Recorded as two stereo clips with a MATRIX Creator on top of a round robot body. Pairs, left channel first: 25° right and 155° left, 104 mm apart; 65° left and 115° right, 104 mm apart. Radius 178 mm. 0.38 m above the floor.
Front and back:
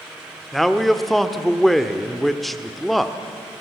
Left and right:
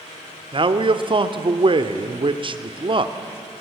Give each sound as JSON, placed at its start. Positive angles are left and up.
{"t": 0.5, "sound": "a man speaking", "azimuth_deg": -110, "distance_m": 1.5}